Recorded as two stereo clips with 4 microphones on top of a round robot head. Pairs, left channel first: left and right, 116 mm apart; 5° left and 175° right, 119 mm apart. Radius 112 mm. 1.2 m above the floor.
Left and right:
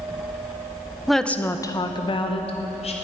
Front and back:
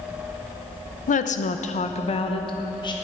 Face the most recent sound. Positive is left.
turn(degrees=60)